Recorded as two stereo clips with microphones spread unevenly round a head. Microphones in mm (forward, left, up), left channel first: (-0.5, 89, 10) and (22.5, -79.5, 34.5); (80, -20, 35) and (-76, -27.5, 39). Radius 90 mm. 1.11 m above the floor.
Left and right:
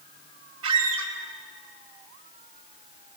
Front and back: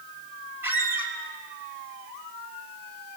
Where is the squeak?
100° right, 3.5 m.